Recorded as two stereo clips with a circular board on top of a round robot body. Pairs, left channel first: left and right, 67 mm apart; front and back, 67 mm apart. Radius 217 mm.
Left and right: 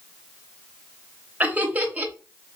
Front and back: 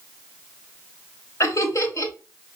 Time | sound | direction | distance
1.4 | laughter | 30° right | 2.0 m